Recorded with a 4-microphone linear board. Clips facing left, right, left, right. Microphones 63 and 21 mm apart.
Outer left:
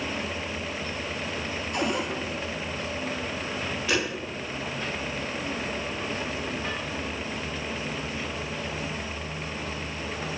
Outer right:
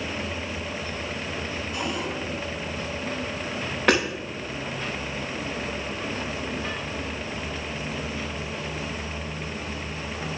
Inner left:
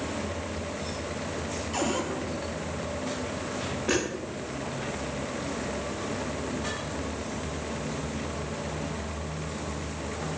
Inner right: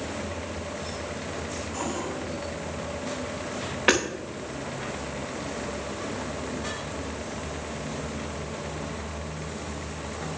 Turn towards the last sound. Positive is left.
turn(degrees=-80)